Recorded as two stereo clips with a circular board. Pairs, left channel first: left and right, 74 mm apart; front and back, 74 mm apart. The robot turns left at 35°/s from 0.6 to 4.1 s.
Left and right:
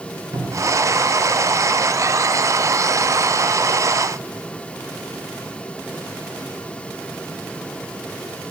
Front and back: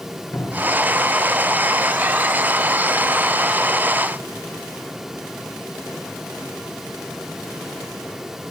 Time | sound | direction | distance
0.3 | a cupboard door | 60° right | 3.5 m